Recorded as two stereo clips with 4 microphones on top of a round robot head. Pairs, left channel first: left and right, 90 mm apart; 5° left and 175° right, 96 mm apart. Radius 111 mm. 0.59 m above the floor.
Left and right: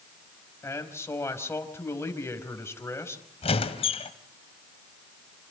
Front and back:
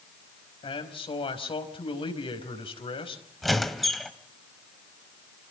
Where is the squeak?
95° left, 2 m.